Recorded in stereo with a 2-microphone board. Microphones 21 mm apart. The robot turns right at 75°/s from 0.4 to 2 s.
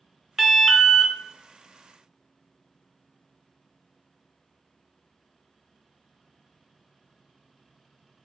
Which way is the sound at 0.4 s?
20° right.